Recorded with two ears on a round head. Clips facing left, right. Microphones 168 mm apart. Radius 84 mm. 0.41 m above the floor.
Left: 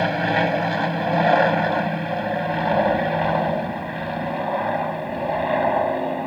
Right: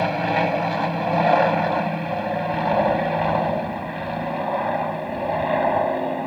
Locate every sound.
0.0 s an aircraft: 5° left (ahead or behind); by 6.3 s centre (ahead or behind)